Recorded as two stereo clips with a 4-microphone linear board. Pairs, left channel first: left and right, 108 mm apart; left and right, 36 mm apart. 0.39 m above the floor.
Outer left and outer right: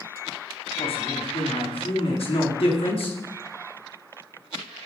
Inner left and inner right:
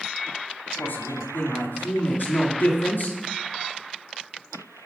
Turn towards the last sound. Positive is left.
turn(degrees=60)  # may be behind; listen again after turning